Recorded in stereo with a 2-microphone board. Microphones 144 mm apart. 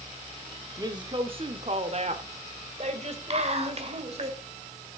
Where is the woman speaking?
25° right (ahead or behind), 0.9 m; by 4.3 s 50° right (ahead or behind), 2 m.